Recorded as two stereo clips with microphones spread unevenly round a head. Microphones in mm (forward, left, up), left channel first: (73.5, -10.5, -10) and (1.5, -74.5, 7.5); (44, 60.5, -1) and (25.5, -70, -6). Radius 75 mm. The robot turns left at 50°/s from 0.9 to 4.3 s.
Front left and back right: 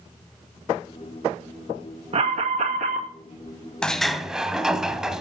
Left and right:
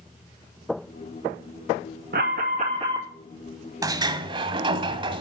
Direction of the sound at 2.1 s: 120° right.